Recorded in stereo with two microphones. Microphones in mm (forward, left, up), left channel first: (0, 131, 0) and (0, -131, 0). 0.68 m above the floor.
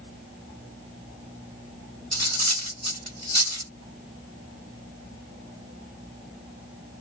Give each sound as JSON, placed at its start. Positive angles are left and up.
{"t": 2.1, "sound": "cutlery clinking", "side_deg": -75, "distance_m": 1.1}